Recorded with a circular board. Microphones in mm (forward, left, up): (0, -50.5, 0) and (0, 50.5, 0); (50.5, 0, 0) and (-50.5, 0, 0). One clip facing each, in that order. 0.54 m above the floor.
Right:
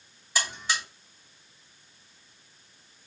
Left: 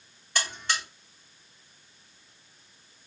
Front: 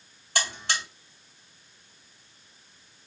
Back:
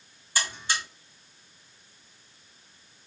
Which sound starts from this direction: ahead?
A buzzer, at 0.3 s.